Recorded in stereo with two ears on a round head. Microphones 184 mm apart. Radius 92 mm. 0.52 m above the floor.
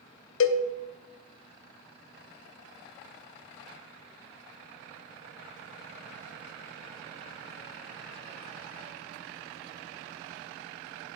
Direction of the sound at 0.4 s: 70° left (ahead or behind).